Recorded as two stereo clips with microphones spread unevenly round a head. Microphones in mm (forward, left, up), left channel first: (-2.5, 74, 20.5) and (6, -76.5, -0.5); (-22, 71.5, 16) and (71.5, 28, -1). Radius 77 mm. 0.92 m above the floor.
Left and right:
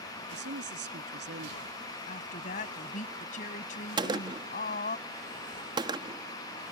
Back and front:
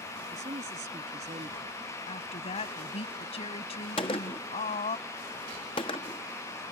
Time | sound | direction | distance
0.3 | a woman speaking | 70° right | ?
2.1 | a woman speaking | 135° left | ?
4.0 | a gunshot | 145° right | ?